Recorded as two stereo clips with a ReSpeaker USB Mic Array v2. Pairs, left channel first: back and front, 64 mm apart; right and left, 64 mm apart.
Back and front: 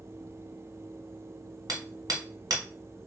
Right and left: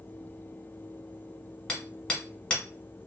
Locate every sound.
1.7 s hammering: 15° right, 1.2 m